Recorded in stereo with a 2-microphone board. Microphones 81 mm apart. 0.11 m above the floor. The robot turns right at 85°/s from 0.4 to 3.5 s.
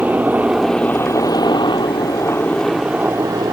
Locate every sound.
0.0 s a helicopter: 20° right; by 3.5 s 115° right